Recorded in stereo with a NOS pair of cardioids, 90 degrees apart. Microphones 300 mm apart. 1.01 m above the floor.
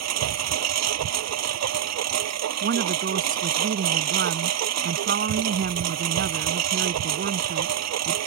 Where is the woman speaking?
45° right.